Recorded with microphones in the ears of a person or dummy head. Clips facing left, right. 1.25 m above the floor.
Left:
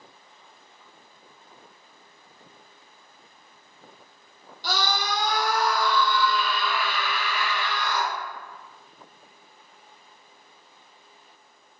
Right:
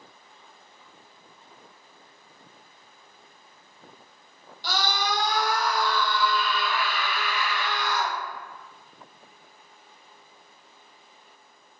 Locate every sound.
4.6 s a scream: 75° left (ahead or behind), 3 m; by 8.1 s 70° left (ahead or behind), 2 m